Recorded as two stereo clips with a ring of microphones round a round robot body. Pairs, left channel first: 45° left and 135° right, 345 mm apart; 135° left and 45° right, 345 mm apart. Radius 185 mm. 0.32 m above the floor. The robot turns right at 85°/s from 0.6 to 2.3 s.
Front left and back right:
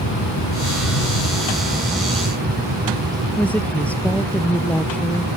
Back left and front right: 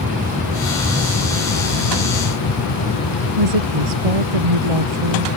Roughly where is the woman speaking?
Ahead right.